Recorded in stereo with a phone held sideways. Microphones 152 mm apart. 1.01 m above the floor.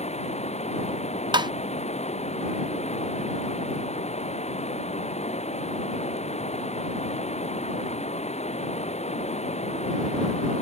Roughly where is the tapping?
Right.